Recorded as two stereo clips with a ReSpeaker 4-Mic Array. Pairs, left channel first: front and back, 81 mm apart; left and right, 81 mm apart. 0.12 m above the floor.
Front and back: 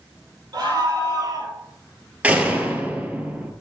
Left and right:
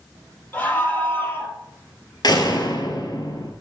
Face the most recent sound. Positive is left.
turn(degrees=110)